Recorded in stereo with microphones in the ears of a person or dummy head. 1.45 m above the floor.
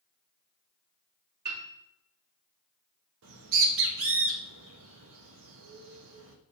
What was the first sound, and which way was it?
A piano, 50° right (ahead or behind).